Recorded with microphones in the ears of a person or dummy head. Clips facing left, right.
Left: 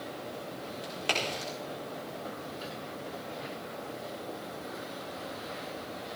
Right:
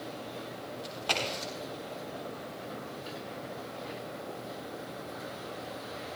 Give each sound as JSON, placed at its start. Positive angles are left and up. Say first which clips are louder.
{"t": 0.8, "sound": "a crack", "louder": "left 1 dB", "side_deg": 30, "distance_m": 4.0}